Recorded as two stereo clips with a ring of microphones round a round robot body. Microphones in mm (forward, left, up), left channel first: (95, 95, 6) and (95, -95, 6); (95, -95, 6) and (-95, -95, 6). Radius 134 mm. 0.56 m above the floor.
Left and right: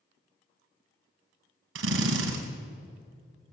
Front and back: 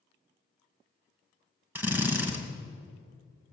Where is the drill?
100° right, 2.5 m.